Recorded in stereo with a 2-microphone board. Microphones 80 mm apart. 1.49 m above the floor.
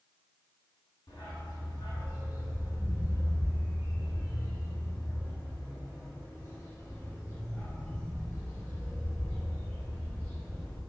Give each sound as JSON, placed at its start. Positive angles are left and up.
{"t": 1.1, "sound": "a dog barking", "side_deg": 65, "distance_m": 4.0}